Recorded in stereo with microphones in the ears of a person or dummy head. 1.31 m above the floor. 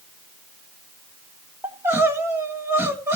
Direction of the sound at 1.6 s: 10° right (ahead or behind).